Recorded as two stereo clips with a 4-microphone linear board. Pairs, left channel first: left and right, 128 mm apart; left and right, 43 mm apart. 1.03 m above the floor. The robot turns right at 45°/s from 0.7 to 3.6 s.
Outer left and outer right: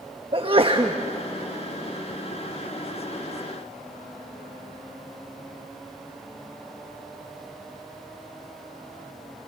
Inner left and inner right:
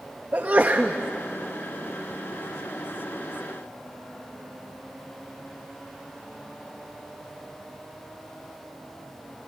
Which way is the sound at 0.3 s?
40° right (ahead or behind).